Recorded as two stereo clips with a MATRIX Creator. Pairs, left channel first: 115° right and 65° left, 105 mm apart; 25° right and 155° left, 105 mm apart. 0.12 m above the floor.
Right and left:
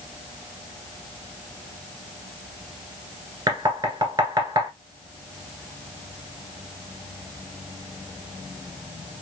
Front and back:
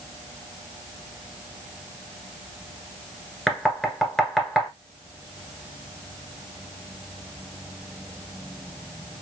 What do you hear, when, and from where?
3.5 s knocking: 60° left, 1.3 m